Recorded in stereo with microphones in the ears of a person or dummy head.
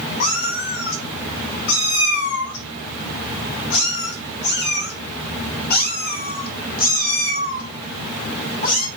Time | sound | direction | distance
0.2 | a cat meowing | 45° left (ahead or behind) | 2 m